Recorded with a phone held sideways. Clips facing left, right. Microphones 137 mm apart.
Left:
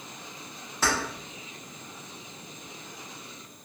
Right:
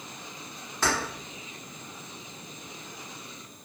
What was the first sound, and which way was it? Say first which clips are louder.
Keys jangling: even; 5° left (ahead or behind).